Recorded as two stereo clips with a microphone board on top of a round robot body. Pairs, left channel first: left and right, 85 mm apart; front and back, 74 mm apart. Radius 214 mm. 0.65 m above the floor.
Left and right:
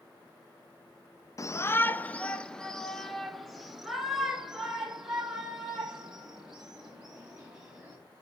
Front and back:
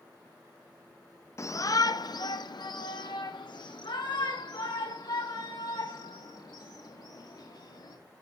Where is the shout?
45° left, 0.9 m; by 8.0 s 10° right, 5.5 m.